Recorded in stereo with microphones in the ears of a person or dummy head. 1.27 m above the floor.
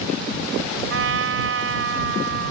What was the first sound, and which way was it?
A trumpet, 70° right (ahead or behind).